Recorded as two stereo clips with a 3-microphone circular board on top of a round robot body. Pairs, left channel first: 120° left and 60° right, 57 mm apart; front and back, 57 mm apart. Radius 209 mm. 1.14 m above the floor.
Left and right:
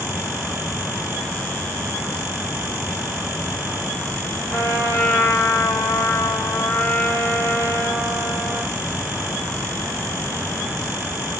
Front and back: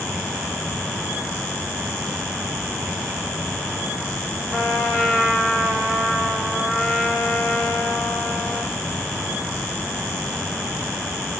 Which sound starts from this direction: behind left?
A trumpet, at 4.5 s.